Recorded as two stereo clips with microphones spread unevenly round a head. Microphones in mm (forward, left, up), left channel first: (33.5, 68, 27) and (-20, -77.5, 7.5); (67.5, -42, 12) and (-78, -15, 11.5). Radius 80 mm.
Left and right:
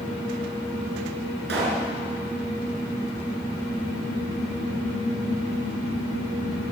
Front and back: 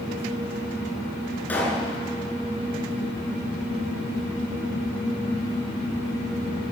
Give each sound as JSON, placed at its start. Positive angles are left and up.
{"t": 1.5, "sound": "a pop", "azimuth_deg": -90, "distance_m": 6.0}